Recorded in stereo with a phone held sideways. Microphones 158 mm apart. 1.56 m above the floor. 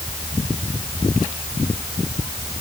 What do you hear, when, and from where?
Only background noise.